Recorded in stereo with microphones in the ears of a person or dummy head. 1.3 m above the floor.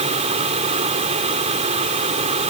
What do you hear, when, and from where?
0.0 s a fan: 30° right (ahead or behind)